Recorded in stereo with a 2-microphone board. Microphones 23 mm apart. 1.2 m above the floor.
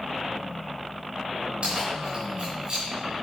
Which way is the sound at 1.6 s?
50° right (ahead or behind).